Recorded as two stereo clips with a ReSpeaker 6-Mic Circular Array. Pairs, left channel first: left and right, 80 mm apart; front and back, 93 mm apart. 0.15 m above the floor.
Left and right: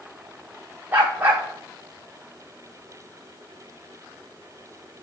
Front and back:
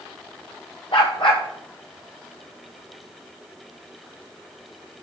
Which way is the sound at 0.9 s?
25° right.